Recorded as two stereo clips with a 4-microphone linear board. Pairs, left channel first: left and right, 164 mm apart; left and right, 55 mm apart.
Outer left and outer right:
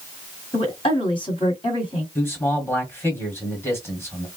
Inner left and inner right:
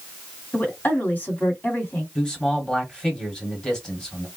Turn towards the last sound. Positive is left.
turn(degrees=15)  # may be behind; listen again after turning